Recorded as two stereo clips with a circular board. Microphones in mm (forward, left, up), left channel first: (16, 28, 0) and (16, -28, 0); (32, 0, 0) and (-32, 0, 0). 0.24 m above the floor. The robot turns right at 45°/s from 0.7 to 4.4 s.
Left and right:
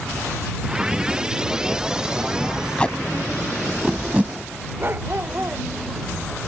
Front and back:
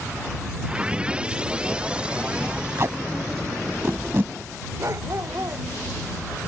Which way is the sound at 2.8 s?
155° left.